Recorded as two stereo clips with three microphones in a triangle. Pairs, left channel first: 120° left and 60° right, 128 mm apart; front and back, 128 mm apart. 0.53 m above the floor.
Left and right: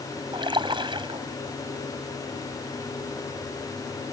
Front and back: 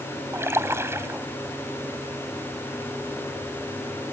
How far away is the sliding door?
I don't hear a sliding door.